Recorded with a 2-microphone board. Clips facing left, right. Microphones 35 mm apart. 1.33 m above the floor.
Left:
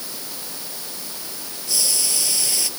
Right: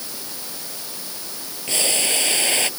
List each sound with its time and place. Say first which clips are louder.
1.7 s boiling: right 4 dB; 50° right (ahead or behind)